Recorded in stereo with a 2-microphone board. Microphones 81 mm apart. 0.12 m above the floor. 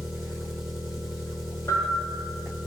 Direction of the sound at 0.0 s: 35° right (ahead or behind).